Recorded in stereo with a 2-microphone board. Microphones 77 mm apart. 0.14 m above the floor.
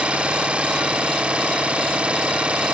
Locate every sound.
0.0 s an engine running: 15° right (ahead or behind)